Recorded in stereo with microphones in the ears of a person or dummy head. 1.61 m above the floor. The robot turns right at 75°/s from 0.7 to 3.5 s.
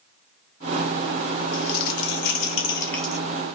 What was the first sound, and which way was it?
Crumpling, 65° left.